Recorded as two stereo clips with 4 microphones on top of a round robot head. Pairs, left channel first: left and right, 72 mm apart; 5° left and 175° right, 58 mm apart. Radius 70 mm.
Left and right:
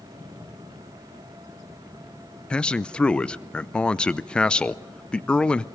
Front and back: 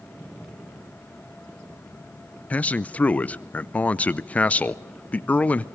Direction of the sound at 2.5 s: 30° left.